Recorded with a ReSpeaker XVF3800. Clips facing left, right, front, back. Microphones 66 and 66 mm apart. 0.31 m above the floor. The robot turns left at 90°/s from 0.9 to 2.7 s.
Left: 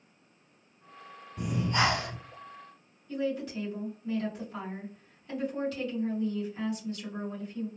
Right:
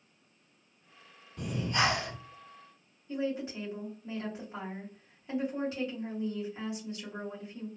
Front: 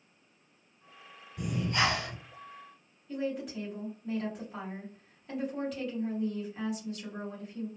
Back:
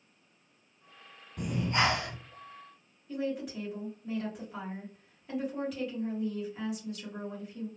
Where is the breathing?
165° left, 1.9 m; by 2.2 s 95° left, 1.9 m.